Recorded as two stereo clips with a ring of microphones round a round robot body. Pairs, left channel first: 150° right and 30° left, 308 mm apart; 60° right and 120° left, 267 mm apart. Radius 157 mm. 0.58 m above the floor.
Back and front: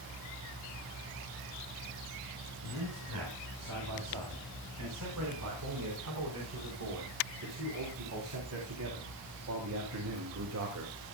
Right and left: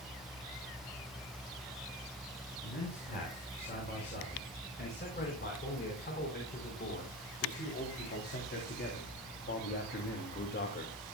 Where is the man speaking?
5° right, 6.5 m; by 11.0 s 15° right, 2.5 m.